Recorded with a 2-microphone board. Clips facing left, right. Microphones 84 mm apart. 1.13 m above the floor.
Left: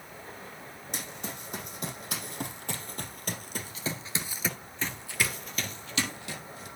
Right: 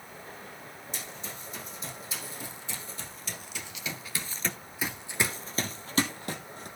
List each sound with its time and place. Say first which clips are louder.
0.9 s running footsteps: left 4 dB; 70° left (ahead or behind), 4.5 m; by 6.7 s 50° right (ahead or behind), 3 m